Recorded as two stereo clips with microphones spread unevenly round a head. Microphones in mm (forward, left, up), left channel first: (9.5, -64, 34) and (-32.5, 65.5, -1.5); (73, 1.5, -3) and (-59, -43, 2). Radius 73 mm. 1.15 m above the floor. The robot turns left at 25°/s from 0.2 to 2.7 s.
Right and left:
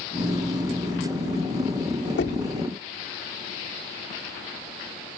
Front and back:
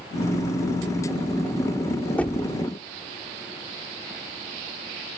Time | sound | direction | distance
2.2 | knocking | 60° right | ?